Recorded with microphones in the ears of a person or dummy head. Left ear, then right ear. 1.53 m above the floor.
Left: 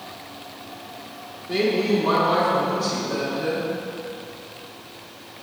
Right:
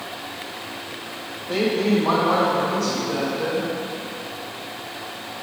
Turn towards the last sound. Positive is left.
turn(degrees=-60)  # may be behind; listen again after turning